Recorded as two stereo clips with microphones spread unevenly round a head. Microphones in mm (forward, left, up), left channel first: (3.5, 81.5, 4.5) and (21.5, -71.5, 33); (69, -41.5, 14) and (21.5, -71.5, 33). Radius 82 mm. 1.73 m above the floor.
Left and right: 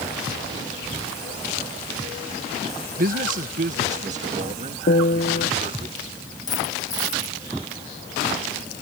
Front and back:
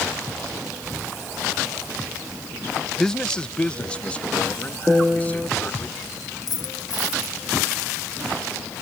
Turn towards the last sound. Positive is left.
turn(degrees=30)